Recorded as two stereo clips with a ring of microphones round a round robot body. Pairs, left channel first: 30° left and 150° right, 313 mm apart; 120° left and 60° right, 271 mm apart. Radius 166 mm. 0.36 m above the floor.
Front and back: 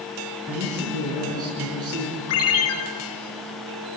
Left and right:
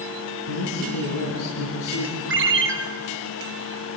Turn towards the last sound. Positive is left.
turn(degrees=-15)